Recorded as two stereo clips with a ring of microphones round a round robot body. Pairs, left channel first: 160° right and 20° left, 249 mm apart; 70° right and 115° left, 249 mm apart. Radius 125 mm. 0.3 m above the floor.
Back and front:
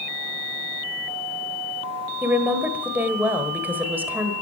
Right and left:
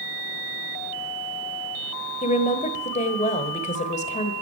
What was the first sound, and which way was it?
A woman speaking, 50° right.